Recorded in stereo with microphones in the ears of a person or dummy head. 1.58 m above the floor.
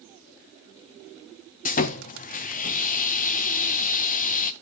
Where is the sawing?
40° left (ahead or behind), 0.5 m.